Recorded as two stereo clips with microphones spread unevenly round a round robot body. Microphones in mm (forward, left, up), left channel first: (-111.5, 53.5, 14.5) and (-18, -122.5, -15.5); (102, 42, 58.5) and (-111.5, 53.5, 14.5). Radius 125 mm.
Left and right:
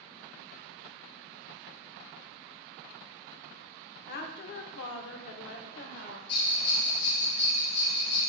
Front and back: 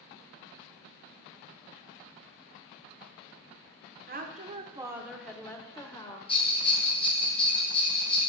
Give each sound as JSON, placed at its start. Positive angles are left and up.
{"t": 4.1, "sound": "a woman speaking", "azimuth_deg": 155, "distance_m": 1.4}
{"t": 6.3, "sound": "a bell", "azimuth_deg": 65, "distance_m": 1.8}